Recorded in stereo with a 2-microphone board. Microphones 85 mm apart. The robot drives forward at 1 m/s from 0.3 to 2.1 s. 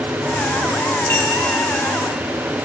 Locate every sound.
1.1 s a clink: 30° left (ahead or behind), 3 m